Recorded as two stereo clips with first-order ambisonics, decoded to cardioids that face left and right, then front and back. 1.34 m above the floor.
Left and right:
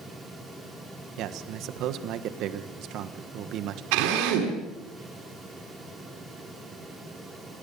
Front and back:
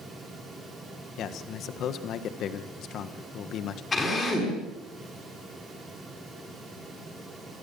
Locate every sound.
1.2 s a man speaking: 50° right, 1.5 m
3.9 s a drill: 75° right, 6.5 m